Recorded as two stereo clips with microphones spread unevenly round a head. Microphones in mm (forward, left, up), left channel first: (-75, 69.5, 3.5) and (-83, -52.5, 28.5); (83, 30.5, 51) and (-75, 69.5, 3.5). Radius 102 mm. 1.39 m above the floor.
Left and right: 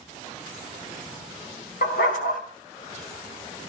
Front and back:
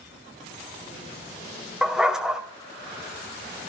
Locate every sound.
1.8 s a dog barking: 75° left, 2.5 m